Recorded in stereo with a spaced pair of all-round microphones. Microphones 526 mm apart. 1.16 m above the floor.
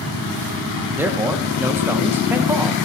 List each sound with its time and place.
1.0 s a man speaking: 5° right (ahead or behind), 1.2 m